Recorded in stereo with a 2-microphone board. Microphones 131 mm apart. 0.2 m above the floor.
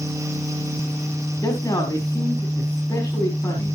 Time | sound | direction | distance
1.4 | a man speaking | 25° left (ahead or behind) | 5 m